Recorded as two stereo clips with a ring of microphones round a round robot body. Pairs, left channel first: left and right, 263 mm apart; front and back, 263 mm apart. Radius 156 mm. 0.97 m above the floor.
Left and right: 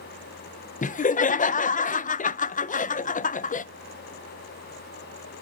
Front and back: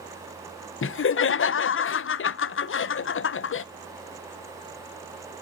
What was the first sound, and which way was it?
Laughter, 35° left.